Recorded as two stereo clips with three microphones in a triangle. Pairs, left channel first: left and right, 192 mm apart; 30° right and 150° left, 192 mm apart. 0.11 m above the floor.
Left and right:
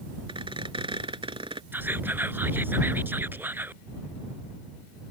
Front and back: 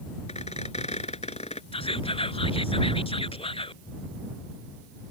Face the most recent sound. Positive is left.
turn(degrees=-20)